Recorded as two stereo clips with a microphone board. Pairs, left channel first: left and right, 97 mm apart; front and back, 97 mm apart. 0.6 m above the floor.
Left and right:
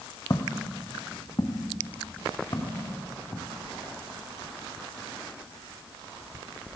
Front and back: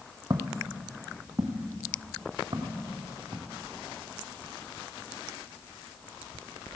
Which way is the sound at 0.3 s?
135° left.